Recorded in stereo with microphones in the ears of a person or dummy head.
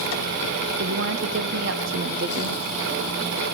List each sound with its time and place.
0.8 s a woman speaking: 70° right (ahead or behind), 0.9 m